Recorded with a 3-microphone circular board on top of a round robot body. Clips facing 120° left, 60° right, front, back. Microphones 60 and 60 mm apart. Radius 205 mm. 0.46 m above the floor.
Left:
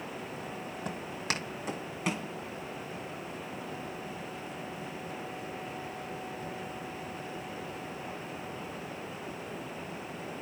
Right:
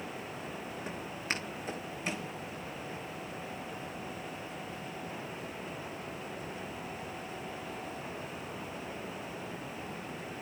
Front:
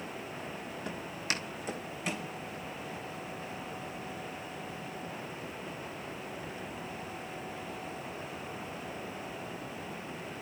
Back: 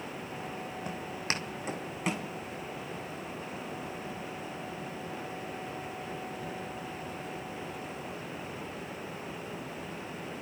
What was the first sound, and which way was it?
Footsteps, 105° left.